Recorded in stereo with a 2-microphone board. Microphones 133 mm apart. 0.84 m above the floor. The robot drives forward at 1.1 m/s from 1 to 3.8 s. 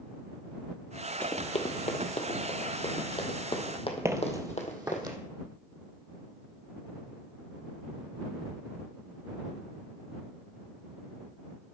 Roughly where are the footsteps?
Centre.